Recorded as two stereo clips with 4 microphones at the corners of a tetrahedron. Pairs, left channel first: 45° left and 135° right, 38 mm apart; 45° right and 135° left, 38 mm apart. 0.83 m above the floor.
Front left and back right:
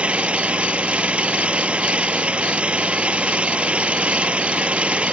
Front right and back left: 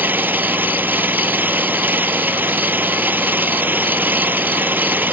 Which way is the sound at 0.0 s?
165° left.